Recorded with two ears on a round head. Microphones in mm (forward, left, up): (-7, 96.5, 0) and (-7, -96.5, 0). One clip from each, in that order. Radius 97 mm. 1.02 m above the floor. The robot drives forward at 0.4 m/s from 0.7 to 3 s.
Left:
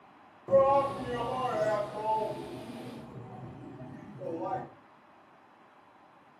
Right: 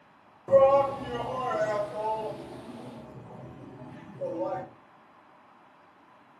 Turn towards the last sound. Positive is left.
turn(degrees=-5)  # may be behind; listen again after turning